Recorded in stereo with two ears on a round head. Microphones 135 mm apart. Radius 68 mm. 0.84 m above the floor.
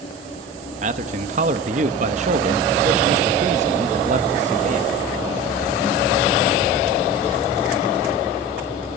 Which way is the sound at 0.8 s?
50° right (ahead or behind).